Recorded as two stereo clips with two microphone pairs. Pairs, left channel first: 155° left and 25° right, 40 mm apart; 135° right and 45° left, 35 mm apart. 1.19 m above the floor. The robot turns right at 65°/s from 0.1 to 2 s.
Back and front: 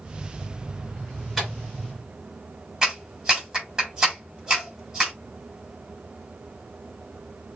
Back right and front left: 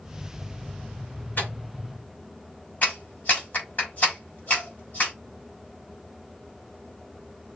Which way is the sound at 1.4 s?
120° right.